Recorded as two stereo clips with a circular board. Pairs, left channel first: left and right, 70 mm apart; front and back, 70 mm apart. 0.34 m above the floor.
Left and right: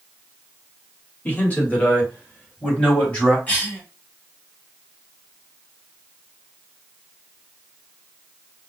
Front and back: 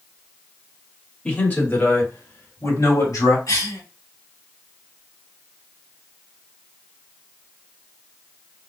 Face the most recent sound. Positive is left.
turn(degrees=25)